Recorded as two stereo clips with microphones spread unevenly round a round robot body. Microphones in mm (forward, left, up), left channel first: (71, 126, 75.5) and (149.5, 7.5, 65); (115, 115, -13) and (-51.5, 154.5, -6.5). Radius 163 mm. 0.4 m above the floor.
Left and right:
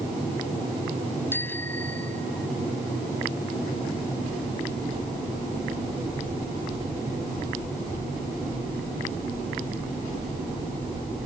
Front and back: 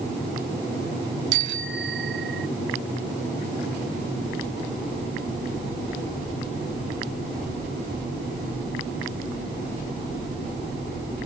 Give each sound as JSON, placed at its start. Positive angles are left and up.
{"t": 1.3, "sound": "a bicycle bell", "azimuth_deg": -155}